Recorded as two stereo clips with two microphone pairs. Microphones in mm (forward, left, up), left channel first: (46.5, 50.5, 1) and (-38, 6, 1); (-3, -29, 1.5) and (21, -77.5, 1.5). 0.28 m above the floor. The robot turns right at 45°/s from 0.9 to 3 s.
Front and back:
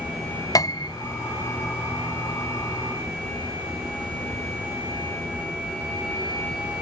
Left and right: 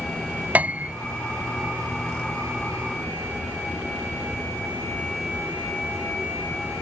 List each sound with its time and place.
0.6 s a piano: 10° right